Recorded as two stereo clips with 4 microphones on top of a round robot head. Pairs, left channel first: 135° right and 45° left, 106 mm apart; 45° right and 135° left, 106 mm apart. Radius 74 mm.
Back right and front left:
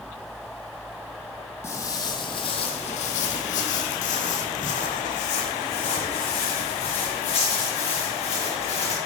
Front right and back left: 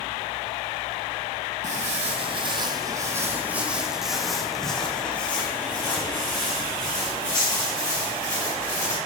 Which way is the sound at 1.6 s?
155° left.